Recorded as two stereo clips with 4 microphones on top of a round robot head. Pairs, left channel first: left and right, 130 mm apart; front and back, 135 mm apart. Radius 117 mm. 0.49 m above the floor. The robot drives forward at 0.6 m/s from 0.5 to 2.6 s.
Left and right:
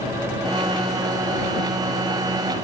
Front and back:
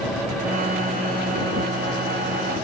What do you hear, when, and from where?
Only background noise.